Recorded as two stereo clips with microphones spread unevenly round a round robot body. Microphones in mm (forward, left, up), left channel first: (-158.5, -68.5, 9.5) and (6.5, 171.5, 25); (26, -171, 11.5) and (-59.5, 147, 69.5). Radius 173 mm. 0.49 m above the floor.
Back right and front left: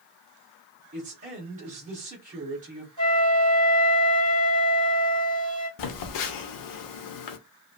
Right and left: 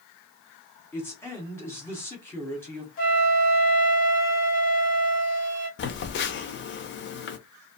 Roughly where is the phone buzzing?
Behind right.